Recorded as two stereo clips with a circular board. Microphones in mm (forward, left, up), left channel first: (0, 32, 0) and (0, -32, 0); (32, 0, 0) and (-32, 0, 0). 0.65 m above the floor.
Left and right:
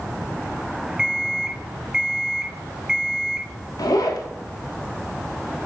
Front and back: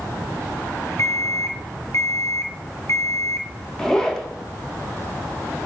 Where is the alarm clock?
15° right, 0.5 m.